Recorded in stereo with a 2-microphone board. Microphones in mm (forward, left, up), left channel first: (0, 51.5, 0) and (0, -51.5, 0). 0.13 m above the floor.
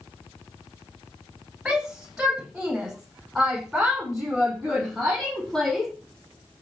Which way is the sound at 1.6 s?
5° right (ahead or behind).